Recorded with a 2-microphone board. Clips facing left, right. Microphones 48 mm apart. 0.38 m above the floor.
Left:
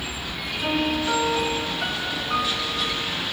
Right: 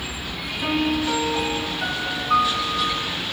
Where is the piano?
30° right (ahead or behind), 3.5 m.